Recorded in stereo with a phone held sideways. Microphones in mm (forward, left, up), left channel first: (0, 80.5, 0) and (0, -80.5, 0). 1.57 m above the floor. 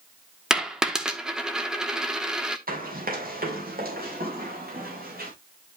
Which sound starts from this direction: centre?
A dropped coin, at 0.5 s.